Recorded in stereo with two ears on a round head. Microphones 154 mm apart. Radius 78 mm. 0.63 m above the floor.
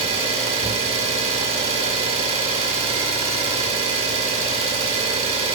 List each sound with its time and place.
0.0 s an engine running: 35° right (ahead or behind), 1.0 m